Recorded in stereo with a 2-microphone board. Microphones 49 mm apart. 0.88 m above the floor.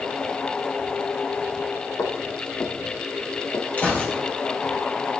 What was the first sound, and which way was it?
Footsteps, 65° left (ahead or behind).